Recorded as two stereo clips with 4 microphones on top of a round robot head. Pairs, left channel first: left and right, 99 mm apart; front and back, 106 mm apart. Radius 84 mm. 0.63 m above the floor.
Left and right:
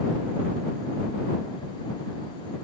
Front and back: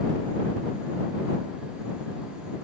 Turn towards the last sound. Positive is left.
No sound to turn to.